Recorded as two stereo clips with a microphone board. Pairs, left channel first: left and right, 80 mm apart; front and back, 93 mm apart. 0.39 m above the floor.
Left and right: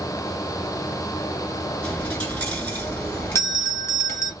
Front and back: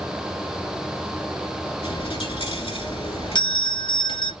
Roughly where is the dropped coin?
Ahead.